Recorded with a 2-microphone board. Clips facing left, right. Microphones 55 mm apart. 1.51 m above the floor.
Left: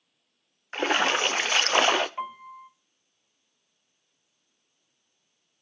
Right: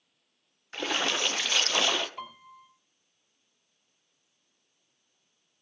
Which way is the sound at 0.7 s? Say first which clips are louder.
Left 6 dB; 30° left (ahead or behind).